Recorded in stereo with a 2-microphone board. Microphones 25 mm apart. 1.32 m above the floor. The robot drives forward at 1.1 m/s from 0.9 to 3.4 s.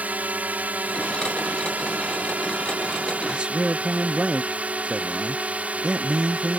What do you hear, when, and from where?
0.0 s a drone: 80° right; by 6.6 s 65° right (ahead or behind)
3.3 s a man speaking: 40° right (ahead or behind)